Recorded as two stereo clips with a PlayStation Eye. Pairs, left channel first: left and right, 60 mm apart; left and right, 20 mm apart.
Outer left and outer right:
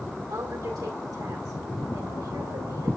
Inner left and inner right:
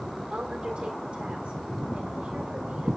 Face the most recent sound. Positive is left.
turn(degrees=-85)